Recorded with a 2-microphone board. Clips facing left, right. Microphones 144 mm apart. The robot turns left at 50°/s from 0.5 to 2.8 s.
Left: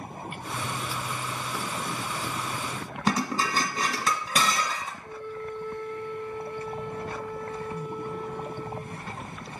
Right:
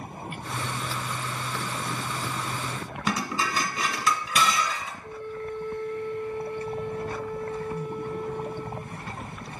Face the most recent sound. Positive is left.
turn(degrees=-15)  # may be behind; listen again after turning